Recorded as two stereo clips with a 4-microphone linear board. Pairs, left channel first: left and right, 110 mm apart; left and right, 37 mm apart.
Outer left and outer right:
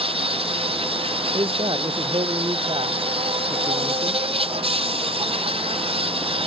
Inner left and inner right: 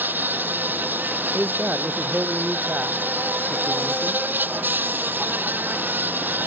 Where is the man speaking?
50° right (ahead or behind).